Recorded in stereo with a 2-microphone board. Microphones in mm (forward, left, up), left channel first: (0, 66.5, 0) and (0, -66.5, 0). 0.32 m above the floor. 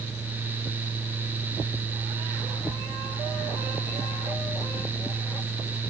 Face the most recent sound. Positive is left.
No sound to turn to.